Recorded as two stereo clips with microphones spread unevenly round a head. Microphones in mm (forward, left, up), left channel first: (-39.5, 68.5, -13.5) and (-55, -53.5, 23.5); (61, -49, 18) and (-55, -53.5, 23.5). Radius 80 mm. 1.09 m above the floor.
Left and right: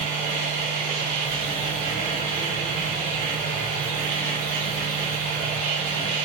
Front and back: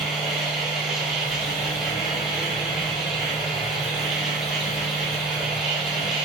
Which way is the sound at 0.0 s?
90° right.